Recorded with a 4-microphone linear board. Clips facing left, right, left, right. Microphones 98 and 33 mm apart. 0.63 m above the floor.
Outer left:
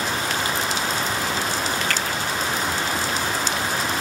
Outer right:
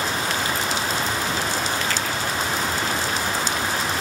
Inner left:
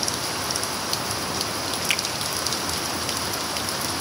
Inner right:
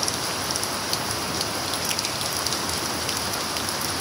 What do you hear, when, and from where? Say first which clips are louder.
1.9 s a finger snap: even, inner left 4 dB; 60° left (ahead or behind), 6 m